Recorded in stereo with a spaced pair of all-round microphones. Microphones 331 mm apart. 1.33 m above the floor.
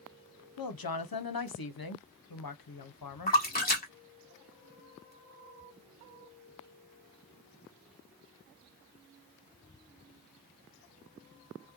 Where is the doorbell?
No doorbell in this recording.